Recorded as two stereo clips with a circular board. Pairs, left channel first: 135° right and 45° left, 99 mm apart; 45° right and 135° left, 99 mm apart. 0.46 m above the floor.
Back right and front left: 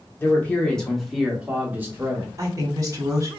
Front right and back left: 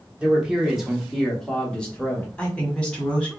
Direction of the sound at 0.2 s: 160° right.